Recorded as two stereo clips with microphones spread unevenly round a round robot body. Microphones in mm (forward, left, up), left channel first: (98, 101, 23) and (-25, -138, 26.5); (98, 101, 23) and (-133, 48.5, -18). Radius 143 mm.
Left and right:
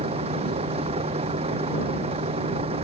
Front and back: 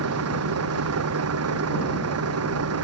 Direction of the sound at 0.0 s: 170° left.